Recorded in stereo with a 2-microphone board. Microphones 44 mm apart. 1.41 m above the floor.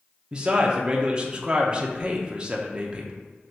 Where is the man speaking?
25° right (ahead or behind), 0.7 m.